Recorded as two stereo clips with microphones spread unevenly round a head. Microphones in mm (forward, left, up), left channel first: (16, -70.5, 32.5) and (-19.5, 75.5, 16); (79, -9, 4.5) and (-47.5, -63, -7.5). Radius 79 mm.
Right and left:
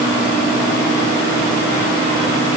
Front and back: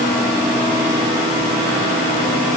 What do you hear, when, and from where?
Only background noise.